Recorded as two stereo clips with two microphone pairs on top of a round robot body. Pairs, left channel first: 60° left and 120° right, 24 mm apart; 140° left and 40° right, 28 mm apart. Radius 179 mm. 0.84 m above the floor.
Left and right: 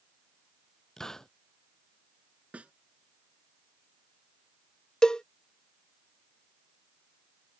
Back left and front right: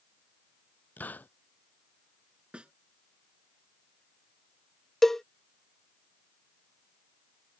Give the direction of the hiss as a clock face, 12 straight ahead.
8 o'clock.